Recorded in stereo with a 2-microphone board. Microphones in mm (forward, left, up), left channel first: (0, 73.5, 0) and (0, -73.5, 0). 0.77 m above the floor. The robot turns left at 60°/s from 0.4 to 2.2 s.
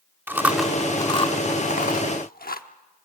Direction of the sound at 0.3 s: 15° right (ahead or behind).